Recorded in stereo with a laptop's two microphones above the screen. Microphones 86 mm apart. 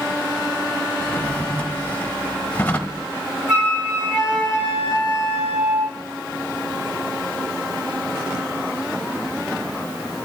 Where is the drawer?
20° left (ahead or behind), 1.0 m.